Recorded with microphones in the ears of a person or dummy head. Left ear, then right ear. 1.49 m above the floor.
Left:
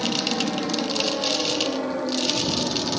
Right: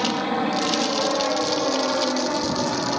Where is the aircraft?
35° right (ahead or behind); by 3.0 s 40° right (ahead or behind).